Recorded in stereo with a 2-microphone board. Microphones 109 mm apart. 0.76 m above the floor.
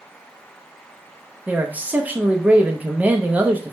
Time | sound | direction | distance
1.5 | a man speaking | 15° right (ahead or behind) | 0.5 m